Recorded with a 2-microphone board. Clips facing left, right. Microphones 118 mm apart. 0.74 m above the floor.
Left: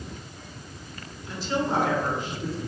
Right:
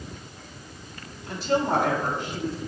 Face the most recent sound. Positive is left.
turn(degrees=-80)